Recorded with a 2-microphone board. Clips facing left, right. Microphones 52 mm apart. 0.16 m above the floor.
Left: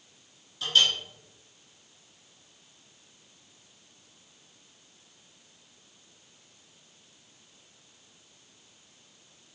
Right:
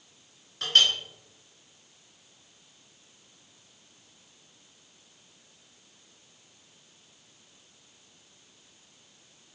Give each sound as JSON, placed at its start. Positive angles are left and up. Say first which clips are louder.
{"t": 0.6, "sound": "a clink", "louder": "right 1 dB", "side_deg": -60, "distance_m": 1.1}